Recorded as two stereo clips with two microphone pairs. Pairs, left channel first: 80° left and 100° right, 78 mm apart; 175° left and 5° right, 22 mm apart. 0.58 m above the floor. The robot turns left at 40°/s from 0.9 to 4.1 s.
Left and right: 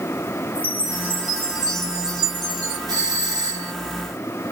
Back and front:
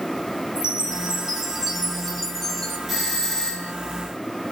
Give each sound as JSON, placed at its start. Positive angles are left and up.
{"t": 0.6, "sound": "a chime", "azimuth_deg": -40, "distance_m": 3.0}
{"t": 2.9, "sound": "a doorbell", "azimuth_deg": -90, "distance_m": 3.0}